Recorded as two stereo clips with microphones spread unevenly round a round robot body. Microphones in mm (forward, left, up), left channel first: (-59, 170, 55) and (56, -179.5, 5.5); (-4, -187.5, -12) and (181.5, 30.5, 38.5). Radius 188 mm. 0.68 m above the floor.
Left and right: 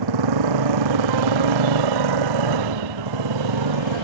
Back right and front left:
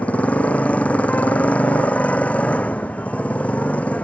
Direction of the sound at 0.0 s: 45° right.